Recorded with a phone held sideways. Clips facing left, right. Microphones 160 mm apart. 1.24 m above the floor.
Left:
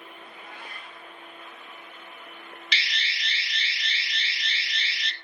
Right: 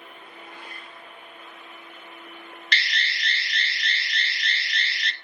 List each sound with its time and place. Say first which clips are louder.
0.2 s a cat meowing: even; 75° left (ahead or behind), 4 m
2.7 s an alarm: right 5 dB; 5° left (ahead or behind), 0.6 m